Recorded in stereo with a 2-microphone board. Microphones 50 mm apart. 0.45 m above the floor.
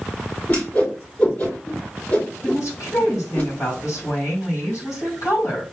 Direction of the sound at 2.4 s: 70° left (ahead or behind).